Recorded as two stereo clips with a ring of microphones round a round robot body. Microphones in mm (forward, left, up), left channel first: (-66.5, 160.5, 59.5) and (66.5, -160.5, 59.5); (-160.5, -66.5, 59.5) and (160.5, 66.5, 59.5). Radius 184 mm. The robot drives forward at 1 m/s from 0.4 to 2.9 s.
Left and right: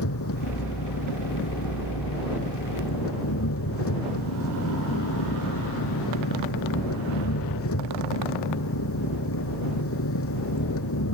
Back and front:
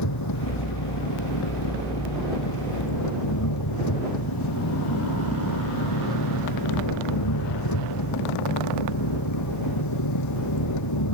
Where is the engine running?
165° left.